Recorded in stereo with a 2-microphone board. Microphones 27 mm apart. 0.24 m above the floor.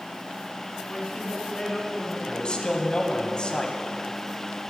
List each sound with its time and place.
0.9 s a woman speaking: 15° left (ahead or behind), 2 m
2.3 s a man speaking: 35° left (ahead or behind), 1.7 m